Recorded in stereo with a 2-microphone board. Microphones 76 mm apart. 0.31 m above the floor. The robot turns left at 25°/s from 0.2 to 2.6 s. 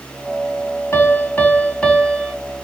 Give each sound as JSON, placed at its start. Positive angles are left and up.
{"t": 0.9, "sound": "a piano", "azimuth_deg": 40, "distance_m": 1.7}